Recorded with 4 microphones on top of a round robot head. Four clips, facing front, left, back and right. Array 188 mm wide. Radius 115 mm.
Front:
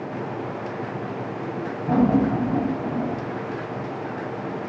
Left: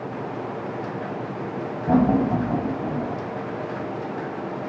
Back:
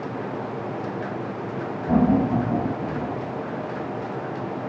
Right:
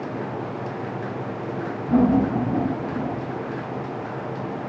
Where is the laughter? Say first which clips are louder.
Even, even; 95° left, 4.5 m; by 3.2 s 80° left, 3 m.